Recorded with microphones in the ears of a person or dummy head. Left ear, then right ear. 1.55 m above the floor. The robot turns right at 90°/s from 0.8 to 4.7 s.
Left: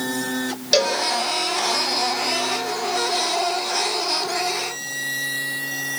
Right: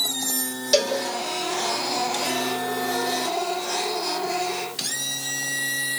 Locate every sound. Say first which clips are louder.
0.7 s a cowbell: left 2 dB; centre (ahead or behind), 2.5 m; by 1.0 s 15° left (ahead or behind), 2.5 m